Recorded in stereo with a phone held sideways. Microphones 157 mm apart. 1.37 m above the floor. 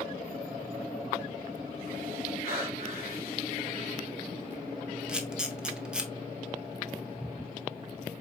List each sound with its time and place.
2.4 s breathing: 80° left, 3 m
5.1 s a camera shutter: 5° right (ahead or behind), 0.6 m